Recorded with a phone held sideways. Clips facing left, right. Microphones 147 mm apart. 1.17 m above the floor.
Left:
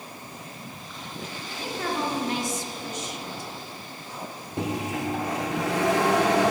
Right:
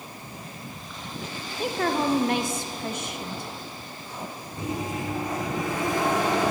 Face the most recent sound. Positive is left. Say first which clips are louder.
# left 2 dB
turn(degrees=80)